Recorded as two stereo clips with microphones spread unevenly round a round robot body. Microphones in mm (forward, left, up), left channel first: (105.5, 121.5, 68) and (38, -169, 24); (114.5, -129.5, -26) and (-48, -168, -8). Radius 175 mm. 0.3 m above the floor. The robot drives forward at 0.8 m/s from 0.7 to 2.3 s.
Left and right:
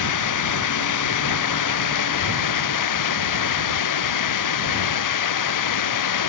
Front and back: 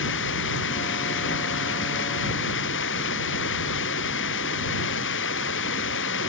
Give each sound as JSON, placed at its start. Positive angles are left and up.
{"t": 0.0, "sound": "running water", "azimuth_deg": 50}